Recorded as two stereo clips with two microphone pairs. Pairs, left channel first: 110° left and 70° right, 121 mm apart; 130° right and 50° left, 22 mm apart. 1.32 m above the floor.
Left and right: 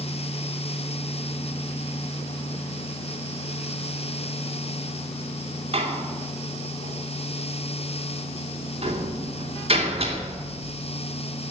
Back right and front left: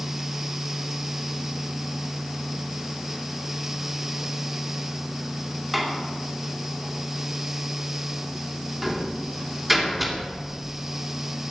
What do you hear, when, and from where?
5.7 s a door slam: 35° right, 3 m